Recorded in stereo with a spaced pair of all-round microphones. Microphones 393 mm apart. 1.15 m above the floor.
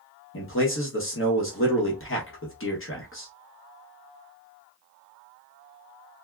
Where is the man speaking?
30° left (ahead or behind), 0.9 m.